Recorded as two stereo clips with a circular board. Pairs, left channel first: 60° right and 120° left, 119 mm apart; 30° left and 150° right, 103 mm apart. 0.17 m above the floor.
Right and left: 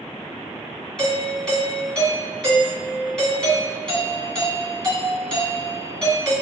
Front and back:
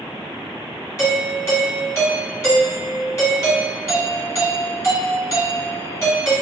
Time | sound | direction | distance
1.0 | a doorbell | 15° left | 2.0 m